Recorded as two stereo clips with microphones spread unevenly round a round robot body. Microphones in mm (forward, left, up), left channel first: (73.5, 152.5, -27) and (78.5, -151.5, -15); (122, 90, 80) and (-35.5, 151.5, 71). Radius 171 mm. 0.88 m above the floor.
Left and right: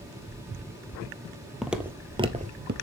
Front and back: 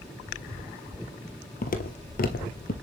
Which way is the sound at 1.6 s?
Straight ahead.